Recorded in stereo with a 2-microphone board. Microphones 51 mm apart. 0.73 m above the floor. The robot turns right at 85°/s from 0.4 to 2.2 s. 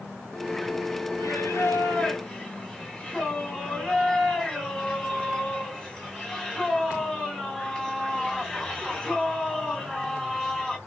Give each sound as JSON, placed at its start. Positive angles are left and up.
{"t": 1.2, "sound": "singing", "azimuth_deg": 75, "distance_m": 2.5}